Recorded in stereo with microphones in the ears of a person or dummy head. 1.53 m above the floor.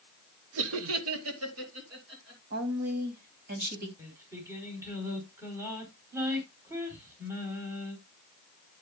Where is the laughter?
65° right (ahead or behind), 1.0 m; by 2.4 s 70° right (ahead or behind), 3.5 m.